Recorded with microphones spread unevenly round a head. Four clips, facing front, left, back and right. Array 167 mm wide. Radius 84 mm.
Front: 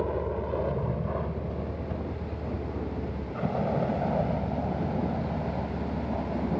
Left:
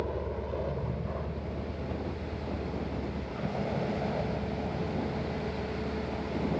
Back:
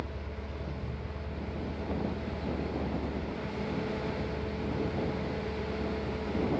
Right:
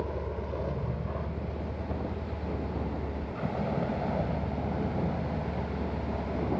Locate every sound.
0.0 s a vehicle: 5° left; by 6.6 s 10° right